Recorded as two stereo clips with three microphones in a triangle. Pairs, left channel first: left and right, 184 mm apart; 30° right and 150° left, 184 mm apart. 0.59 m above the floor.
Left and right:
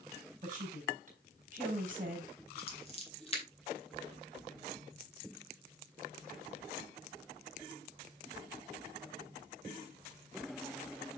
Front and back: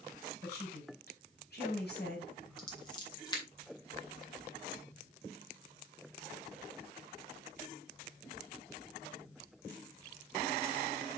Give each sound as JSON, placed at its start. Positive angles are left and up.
{"t": 0.4, "sound": "a woman speaking", "azimuth_deg": -50, "distance_m": 4.5}
{"t": 2.6, "sound": "scissors", "azimuth_deg": 35, "distance_m": 2.5}